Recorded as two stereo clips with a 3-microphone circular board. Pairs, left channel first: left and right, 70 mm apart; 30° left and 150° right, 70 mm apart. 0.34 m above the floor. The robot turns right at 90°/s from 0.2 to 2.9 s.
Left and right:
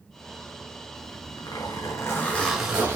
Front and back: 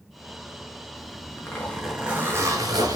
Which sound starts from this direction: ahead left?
A zipper, at 0.9 s.